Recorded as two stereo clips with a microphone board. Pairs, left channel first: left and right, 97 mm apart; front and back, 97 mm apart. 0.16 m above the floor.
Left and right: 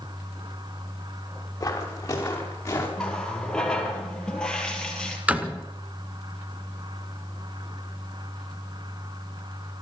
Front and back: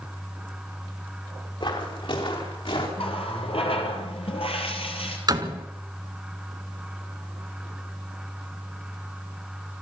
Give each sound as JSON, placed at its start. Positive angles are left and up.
{"t": 1.6, "sound": "footsteps", "azimuth_deg": 30, "distance_m": 6.0}
{"t": 3.0, "sound": "a running tap", "azimuth_deg": 10, "distance_m": 3.0}
{"t": 5.3, "sound": "a door slam", "azimuth_deg": -160, "distance_m": 1.5}